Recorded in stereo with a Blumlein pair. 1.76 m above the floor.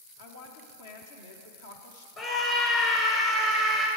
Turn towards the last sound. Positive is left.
turn(degrees=35)